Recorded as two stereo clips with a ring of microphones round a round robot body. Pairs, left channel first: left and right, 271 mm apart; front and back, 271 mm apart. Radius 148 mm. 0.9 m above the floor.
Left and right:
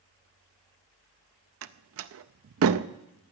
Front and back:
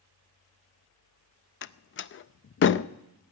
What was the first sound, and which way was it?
A door slam, 50° right.